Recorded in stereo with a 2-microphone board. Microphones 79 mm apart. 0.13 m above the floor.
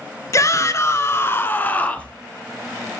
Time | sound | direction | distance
0.3 | a shout | 45° left (ahead or behind) | 1.5 m